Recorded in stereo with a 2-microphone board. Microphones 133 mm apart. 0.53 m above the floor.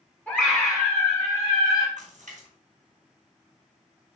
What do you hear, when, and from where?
0.3 s a scream: 10° left (ahead or behind), 3 m; by 1.9 s 35° left (ahead or behind), 4 m
2.0 s a splash: 70° right (ahead or behind), 4 m